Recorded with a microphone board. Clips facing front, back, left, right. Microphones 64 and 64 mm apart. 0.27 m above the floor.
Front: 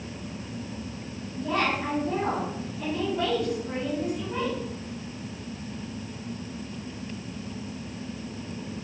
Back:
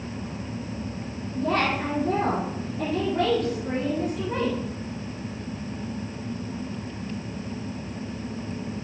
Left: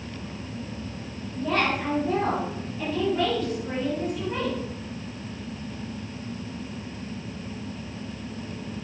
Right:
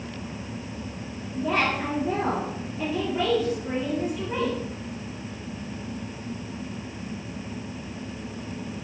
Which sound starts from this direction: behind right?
A woman speaking, at 1.4 s.